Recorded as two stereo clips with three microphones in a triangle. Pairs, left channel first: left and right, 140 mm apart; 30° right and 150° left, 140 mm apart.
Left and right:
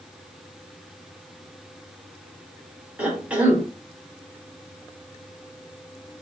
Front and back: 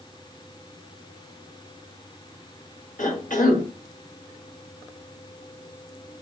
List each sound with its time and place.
3.0 s a cough: 10° right, 1.6 m